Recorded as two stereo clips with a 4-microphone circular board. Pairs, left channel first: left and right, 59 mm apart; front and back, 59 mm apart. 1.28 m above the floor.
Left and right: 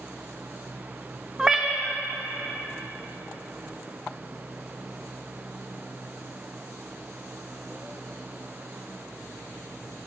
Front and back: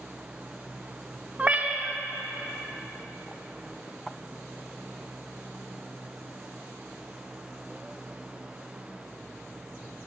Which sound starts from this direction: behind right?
A cat meowing, at 1.4 s.